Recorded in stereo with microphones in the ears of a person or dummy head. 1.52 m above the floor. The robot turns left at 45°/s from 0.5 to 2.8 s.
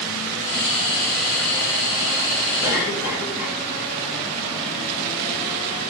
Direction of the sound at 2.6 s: 20° right (ahead or behind).